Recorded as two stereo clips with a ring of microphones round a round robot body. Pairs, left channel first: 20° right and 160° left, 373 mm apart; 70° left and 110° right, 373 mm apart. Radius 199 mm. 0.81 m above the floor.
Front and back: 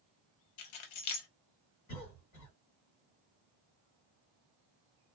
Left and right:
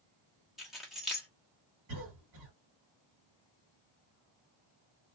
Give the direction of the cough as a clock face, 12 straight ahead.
2 o'clock.